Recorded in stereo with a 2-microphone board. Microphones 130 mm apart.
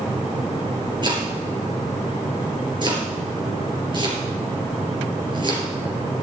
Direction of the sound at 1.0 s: 35° right (ahead or behind).